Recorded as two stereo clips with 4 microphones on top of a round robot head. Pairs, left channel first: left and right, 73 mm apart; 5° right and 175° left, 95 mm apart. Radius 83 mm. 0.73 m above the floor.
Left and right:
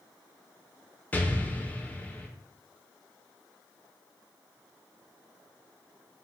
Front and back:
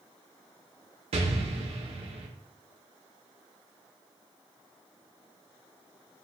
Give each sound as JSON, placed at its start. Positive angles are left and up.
{"t": 1.1, "sound": "an explosion", "azimuth_deg": 160, "distance_m": 0.6}